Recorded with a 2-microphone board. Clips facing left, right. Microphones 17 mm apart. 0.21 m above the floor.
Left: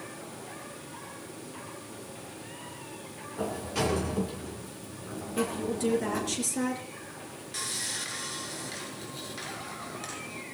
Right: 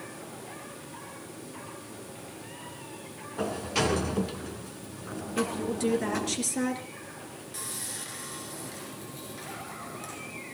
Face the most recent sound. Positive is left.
turn(degrees=30)  # may be behind; listen again after turning